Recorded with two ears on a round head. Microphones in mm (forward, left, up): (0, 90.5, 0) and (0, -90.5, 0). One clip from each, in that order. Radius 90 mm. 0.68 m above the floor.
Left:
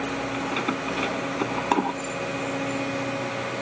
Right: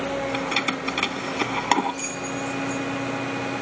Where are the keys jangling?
65° right (ahead or behind).